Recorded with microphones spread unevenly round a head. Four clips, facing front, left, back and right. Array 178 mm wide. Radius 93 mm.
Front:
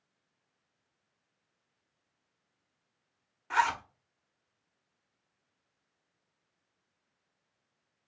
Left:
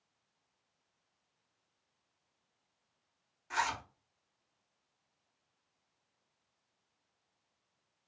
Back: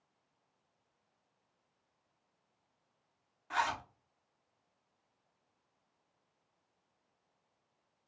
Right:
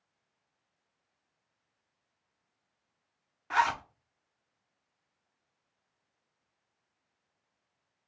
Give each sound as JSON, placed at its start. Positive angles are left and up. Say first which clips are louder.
{"t": 3.5, "sound": "a zipper", "louder": "right 8 dB, front 6 dB", "azimuth_deg": -50, "distance_m": 1.0}